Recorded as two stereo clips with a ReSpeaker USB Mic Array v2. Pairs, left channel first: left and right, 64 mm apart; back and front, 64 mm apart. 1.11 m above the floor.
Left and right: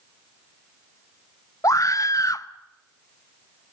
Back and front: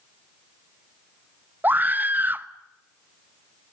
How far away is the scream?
About 1.0 m.